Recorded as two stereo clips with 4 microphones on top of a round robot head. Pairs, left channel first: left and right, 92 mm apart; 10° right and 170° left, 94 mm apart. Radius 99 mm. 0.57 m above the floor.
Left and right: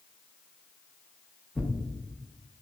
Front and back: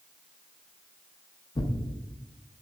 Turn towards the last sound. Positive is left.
turn(degrees=5)